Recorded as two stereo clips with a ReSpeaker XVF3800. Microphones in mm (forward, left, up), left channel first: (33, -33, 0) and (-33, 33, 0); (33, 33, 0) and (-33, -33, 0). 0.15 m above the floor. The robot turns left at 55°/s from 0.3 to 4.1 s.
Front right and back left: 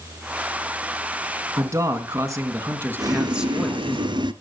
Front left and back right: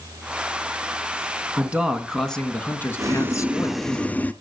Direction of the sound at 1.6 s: 165° left.